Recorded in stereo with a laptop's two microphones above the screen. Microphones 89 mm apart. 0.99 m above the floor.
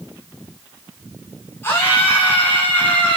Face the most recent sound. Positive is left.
turn(degrees=20)  # may be behind; listen again after turning